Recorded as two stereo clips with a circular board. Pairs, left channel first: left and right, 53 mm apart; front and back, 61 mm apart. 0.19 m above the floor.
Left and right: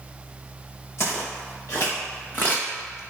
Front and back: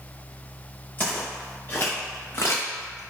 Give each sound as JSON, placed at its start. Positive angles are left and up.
{"t": 1.0, "sound": "footsteps", "azimuth_deg": 65, "distance_m": 1.9}